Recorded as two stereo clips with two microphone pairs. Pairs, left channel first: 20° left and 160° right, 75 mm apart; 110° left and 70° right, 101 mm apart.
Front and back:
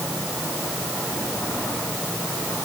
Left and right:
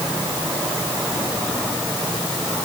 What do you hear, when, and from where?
Only background noise.